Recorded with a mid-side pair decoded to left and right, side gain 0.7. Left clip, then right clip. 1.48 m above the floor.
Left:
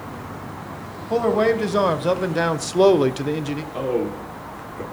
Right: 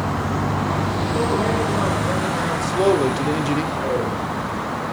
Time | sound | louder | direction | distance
1.1 | a man speaking | left 5 dB | 55° left | 1.7 m
3.7 | a man speaking | right 2 dB | 65° left | 5 m